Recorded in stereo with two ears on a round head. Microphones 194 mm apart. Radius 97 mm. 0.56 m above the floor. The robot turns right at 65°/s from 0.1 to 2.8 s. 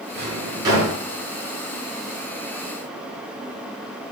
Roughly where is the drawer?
Right.